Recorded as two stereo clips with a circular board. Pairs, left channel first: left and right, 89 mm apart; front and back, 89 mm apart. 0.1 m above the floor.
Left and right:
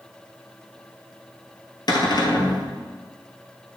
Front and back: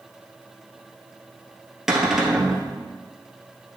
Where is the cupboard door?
95° left, 1.2 m.